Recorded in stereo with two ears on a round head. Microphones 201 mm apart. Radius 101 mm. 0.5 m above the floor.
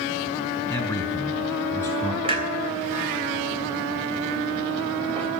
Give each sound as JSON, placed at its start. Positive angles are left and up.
{"t": 0.7, "sound": "a man speaking", "side_deg": 10, "distance_m": 4.5}
{"t": 2.2, "sound": "a clunk", "side_deg": -25, "distance_m": 3.0}